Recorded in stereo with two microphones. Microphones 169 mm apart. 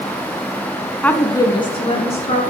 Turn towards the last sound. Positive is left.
turn(degrees=35)  # may be behind; listen again after turning